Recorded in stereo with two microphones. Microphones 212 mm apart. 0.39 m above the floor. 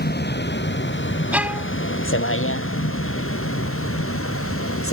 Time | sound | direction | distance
0.0 | a vehicle | 50° left (ahead or behind) | ?
1.3 | a violin | 5° right (ahead or behind) | ?